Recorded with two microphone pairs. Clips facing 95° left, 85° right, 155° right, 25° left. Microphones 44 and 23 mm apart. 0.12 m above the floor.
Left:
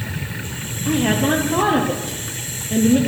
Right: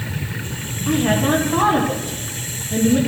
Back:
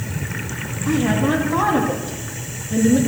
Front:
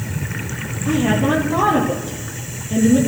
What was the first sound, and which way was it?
A woman speaking, 85° left.